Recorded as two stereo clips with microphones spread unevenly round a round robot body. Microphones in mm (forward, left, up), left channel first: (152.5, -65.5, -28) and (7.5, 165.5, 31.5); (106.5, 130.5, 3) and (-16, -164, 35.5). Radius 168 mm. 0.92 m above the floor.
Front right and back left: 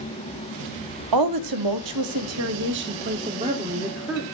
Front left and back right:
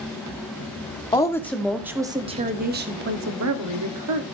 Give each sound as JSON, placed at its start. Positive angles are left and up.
{"t": 1.1, "sound": "a woman speaking", "azimuth_deg": 145, "distance_m": 1.7}